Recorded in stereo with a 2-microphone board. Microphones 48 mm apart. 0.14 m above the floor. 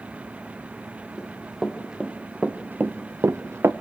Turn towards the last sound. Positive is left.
turn(degrees=-60)  # may be behind; listen again after turning